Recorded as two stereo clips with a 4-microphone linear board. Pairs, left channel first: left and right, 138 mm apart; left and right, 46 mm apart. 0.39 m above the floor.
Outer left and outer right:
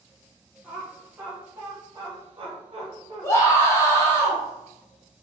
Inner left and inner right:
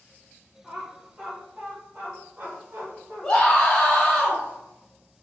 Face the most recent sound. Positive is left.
turn(degrees=20)  # may be behind; listen again after turning